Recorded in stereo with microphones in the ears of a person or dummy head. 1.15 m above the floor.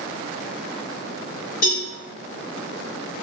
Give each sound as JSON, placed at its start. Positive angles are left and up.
{"t": 1.6, "sound": "a cowbell", "side_deg": 65, "distance_m": 1.7}